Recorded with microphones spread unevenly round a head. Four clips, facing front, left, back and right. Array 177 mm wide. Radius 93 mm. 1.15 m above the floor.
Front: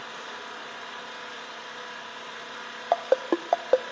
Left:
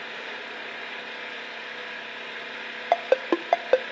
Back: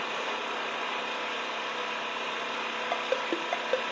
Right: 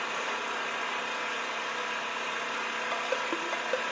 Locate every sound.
0.0 s an engine running: 170° right, 1.2 m
2.9 s a ringtone: 75° left, 0.6 m